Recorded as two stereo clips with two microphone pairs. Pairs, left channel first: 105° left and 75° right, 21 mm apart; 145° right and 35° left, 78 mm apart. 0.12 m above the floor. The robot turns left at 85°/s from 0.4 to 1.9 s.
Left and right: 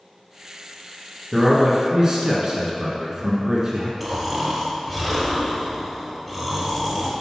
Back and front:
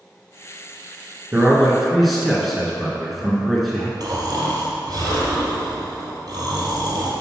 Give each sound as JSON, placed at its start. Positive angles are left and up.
{"t": 1.3, "sound": "a man speaking", "azimuth_deg": -10, "distance_m": 1.6}
{"t": 4.0, "sound": "snoring", "azimuth_deg": 15, "distance_m": 2.0}